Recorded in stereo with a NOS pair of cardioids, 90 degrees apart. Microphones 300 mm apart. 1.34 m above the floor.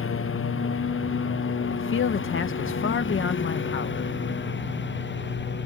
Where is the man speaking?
40° left.